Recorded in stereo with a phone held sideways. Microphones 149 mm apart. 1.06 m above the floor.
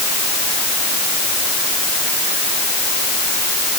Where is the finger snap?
I don't hear a finger snap.